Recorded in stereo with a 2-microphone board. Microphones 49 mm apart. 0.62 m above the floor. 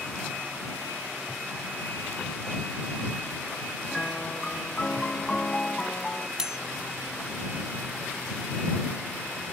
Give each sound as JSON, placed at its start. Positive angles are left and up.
{"t": 3.9, "sound": "a piano", "side_deg": 20}
{"t": 6.4, "sound": "cutlery clinking", "side_deg": -10}